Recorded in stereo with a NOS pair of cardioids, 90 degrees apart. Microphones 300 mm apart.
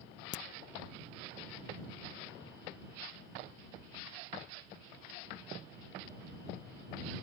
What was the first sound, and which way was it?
A crack, 40° left.